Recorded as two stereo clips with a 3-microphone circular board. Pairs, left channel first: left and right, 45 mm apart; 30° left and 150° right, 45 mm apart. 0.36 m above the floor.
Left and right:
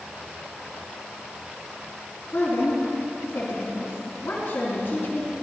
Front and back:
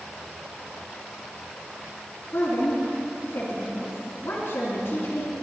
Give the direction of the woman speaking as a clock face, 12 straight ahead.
10 o'clock.